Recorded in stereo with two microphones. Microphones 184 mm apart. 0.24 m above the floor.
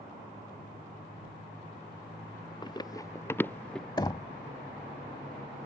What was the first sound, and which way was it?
Running footsteps, 25° left (ahead or behind).